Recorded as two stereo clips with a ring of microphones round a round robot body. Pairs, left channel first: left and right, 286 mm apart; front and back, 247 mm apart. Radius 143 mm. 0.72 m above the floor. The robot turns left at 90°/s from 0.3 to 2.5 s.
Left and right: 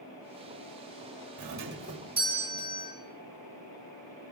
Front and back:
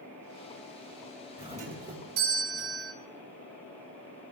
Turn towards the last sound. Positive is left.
turn(degrees=155)